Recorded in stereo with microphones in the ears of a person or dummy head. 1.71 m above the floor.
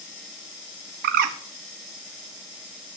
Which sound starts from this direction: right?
A bird, at 1.0 s.